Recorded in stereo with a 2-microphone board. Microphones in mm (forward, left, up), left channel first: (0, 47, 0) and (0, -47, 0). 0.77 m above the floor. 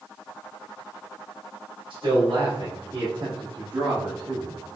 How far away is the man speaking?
About 2.5 m.